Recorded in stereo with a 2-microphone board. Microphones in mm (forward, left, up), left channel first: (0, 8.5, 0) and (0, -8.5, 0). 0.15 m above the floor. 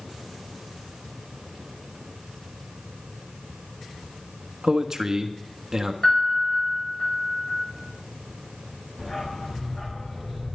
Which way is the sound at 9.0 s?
45° left (ahead or behind).